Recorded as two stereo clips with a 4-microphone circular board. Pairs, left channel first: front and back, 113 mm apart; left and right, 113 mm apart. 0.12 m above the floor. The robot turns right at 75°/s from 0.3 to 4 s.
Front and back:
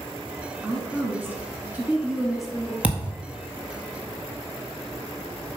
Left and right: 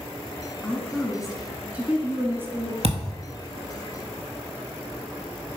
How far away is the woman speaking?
About 1.4 m.